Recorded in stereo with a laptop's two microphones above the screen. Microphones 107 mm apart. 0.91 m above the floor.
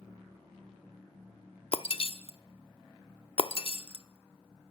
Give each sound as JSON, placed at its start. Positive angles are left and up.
{"t": 1.7, "sound": "breaking glass", "side_deg": 55, "distance_m": 0.7}